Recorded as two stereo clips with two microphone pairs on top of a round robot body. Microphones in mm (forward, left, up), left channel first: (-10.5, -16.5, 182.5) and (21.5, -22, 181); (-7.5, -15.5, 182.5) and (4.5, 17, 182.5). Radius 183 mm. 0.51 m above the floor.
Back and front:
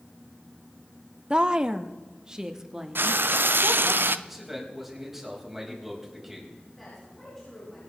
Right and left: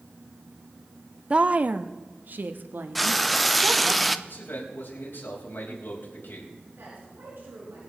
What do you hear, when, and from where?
1.3 s a woman speaking: 30° left, 0.8 m; by 4.0 s 65° left, 1.9 m
3.0 s frying: 20° right, 0.5 m
4.3 s a man speaking: 90° right, 4.5 m
6.8 s a woman speaking: 90° left, 7 m